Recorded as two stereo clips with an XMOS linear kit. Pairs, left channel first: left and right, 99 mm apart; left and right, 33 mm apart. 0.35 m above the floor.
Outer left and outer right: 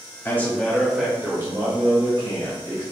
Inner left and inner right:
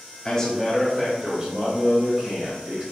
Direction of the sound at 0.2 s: 25° left (ahead or behind).